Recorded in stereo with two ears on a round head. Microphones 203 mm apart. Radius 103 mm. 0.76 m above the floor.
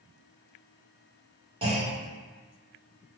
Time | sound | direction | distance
1.6 | a clunk | 25° right (ahead or behind) | 1.1 m